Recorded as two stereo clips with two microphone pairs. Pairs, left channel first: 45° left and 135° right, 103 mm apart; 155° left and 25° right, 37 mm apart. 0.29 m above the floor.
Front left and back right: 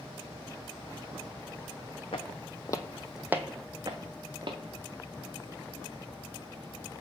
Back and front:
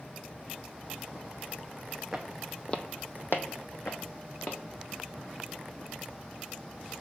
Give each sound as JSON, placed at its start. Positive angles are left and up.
{"t": 2.1, "sound": "footsteps", "azimuth_deg": 60, "distance_m": 0.7}